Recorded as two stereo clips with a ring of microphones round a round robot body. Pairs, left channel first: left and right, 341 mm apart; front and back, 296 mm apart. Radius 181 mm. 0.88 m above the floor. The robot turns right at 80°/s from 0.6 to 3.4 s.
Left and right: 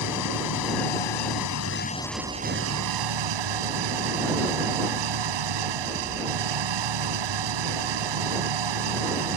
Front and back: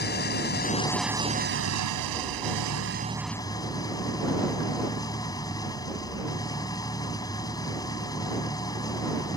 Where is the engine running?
55° left; by 9.4 s 80° right.